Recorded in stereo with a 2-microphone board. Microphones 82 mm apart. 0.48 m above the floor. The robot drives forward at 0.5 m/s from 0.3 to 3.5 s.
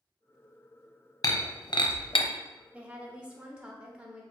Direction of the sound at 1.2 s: 40° left (ahead or behind).